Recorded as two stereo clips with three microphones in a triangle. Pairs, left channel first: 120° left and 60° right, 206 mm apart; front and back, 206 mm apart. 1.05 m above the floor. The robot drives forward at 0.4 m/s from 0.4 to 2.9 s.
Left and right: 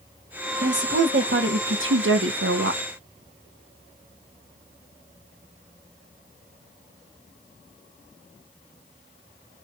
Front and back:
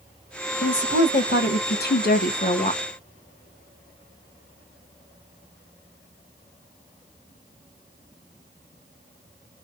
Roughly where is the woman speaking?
Ahead right.